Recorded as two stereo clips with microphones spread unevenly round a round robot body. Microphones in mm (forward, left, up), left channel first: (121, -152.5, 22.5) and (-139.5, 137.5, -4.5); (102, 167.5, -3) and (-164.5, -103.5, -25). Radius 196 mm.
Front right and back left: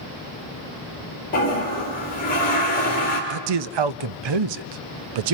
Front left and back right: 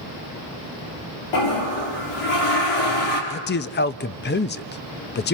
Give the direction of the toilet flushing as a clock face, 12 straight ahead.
11 o'clock.